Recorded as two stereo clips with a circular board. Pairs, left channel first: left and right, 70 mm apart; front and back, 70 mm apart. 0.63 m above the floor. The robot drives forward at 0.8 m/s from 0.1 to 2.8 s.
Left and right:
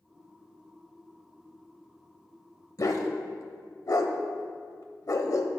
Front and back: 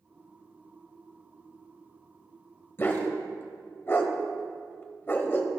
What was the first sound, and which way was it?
A dog barking, 55° left.